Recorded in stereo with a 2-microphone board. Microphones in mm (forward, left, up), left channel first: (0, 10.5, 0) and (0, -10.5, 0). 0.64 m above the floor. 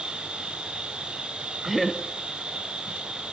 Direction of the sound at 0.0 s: 60° right (ahead or behind).